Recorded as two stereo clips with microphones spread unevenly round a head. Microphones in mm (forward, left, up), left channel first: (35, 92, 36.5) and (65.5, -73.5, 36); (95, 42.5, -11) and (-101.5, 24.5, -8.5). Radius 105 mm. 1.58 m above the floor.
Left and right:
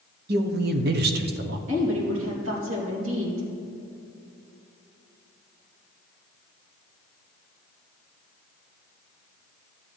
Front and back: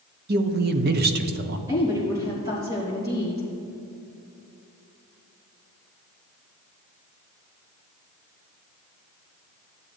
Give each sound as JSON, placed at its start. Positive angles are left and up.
{"t": 0.3, "sound": "a woman speaking", "azimuth_deg": -125, "distance_m": 0.7}
{"t": 1.7, "sound": "a woman speaking", "azimuth_deg": -100, "distance_m": 3.0}